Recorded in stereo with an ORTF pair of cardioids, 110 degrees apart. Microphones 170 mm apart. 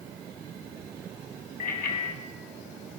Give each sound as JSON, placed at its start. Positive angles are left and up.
{"t": 1.6, "sound": "a bicycle bell", "azimuth_deg": 60, "distance_m": 6.5}